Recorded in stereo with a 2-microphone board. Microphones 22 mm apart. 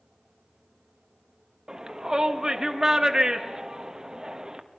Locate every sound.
1.7 s a shout: 25° right (ahead or behind), 1.5 m